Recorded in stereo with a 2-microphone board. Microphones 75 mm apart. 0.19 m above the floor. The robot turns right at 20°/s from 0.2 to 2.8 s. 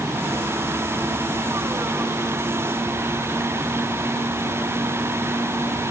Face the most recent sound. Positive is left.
No sound to turn to.